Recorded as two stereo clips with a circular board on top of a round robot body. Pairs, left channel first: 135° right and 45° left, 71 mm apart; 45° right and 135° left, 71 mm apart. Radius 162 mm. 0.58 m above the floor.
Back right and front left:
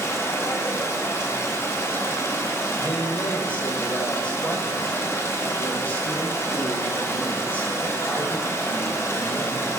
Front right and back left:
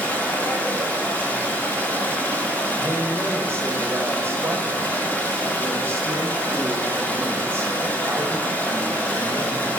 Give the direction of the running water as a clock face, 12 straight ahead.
3 o'clock.